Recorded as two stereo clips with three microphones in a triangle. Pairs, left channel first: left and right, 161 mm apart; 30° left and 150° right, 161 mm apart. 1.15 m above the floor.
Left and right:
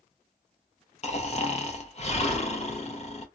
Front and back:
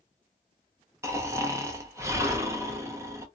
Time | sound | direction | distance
1.0 | snoring | 140° left | 0.7 m